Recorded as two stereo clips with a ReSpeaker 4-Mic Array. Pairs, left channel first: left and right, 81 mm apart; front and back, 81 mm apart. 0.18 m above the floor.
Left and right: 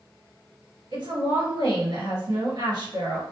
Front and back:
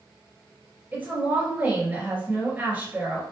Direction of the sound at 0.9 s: 110° right.